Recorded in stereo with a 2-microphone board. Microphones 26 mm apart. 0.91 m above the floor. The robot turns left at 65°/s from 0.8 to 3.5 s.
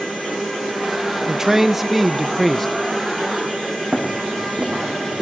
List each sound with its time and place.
1.3 s a man speaking: 15° right (ahead or behind), 0.6 m; by 2.7 s 10° left (ahead or behind), 0.6 m
3.9 s running footsteps: 50° right (ahead or behind), 4.5 m; by 5.2 s 55° right (ahead or behind), 4 m